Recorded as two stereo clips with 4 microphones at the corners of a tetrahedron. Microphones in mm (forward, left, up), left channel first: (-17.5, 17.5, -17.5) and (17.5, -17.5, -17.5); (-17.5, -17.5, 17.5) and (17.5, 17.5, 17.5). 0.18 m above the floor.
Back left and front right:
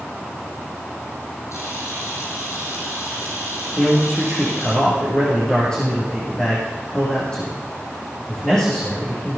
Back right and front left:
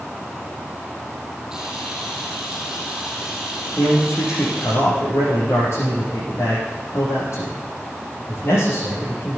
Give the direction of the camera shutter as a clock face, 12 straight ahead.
8 o'clock.